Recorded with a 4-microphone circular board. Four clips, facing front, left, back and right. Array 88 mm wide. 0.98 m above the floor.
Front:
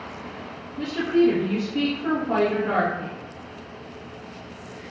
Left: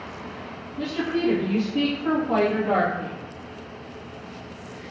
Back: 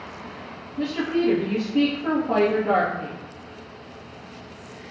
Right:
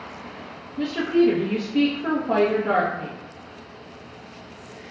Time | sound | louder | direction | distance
0.8 | a woman speaking | right 5 dB, front 3 dB | 105° right | 0.9 m